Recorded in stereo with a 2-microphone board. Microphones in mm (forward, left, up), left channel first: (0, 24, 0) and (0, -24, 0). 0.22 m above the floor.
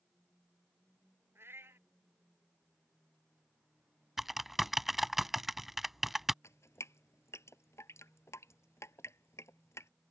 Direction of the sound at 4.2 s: 5° right (ahead or behind).